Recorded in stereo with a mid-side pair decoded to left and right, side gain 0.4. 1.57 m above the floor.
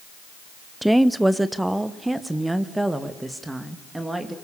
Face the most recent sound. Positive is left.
turn(degrees=-15)